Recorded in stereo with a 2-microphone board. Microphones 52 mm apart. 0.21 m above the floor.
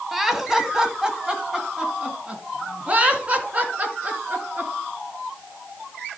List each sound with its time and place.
0.1 s laughter: 5° right (ahead or behind), 1.6 m; by 4.7 s 35° right (ahead or behind), 3.5 m